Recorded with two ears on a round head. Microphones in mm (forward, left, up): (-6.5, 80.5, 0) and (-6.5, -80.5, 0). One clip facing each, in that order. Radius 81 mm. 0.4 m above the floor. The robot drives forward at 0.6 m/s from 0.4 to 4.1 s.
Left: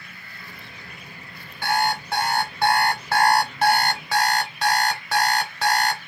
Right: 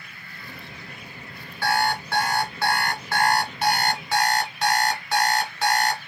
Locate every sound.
1.6 s an alarm clock: 20° left (ahead or behind), 2 m; by 6.0 s 50° left (ahead or behind), 0.9 m